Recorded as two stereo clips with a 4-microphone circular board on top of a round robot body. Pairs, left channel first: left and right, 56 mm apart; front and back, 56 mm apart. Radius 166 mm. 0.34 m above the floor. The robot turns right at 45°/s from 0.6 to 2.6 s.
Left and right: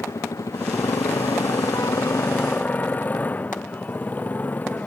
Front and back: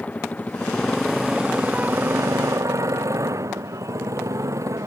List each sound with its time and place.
0.0 s a motorcycle: 65° left; by 4.9 s 155° left